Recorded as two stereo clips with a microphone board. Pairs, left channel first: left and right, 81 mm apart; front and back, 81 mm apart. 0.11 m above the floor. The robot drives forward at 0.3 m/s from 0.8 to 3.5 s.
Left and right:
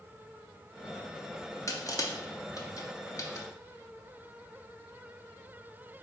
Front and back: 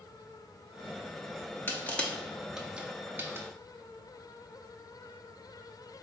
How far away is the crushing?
About 0.5 m.